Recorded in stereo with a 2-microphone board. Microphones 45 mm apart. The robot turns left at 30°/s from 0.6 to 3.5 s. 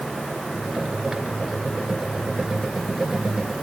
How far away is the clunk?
I don't hear a clunk.